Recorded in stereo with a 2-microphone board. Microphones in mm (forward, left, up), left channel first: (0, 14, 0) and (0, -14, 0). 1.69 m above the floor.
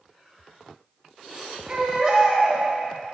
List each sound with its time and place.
1.7 s a baby crying: 20° right (ahead or behind), 2.5 m